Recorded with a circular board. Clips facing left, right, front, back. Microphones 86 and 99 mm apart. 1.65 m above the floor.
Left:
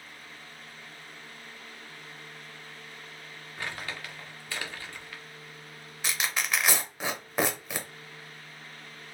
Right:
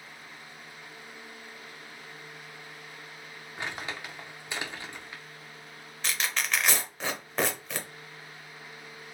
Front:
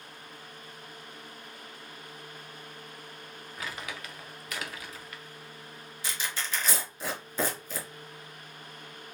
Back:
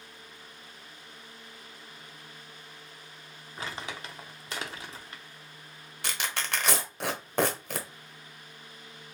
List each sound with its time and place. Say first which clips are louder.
3.6 s crumpling: right 1 dB, back 2 dB; 145° right, 0.7 m
6.0 s tearing paper: even, back 2 dB; 170° left, 0.8 m